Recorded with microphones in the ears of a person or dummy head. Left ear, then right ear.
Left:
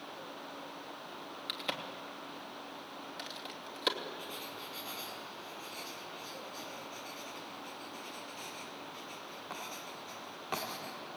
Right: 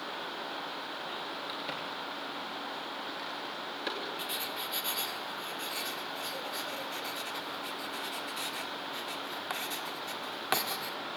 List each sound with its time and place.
1.5 s a crack: 25° left (ahead or behind), 3 m
4.2 s writing: 40° right (ahead or behind), 1.6 m